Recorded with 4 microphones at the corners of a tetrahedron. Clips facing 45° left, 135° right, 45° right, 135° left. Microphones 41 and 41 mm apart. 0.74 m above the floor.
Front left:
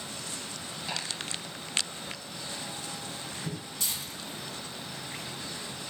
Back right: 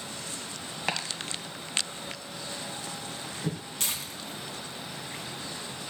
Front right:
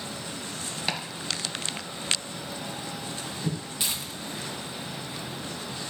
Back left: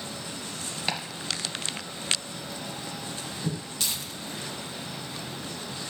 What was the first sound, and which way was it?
Chopping, 135° right.